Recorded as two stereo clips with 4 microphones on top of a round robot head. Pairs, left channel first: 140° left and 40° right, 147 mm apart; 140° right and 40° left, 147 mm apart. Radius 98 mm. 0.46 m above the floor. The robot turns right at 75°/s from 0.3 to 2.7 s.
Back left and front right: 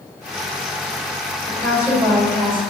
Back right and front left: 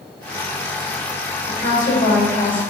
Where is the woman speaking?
145° right, 2.0 m; by 2.6 s 60° right, 2.0 m.